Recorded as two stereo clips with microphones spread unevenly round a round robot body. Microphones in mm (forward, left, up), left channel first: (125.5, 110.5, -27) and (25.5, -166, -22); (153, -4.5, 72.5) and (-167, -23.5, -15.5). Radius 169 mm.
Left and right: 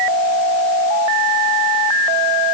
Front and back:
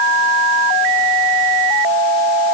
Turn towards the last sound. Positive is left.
No sound to turn to.